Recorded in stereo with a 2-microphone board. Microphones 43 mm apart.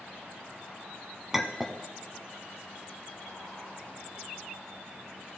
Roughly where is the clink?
Centre.